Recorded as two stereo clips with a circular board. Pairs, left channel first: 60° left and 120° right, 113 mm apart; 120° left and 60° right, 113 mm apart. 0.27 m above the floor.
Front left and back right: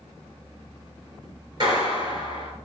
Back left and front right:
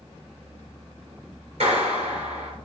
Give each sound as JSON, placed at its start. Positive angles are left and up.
{"t": 1.6, "sound": "a clap", "azimuth_deg": -75, "distance_m": 4.0}